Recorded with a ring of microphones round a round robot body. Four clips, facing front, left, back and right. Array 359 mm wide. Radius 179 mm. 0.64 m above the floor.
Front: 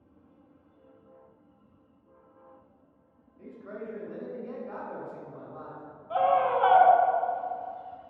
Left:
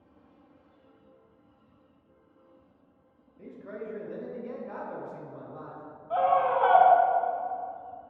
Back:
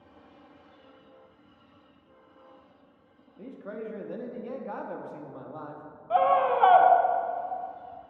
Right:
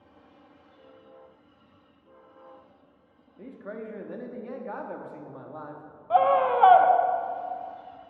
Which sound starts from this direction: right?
A scream, at 6.1 s.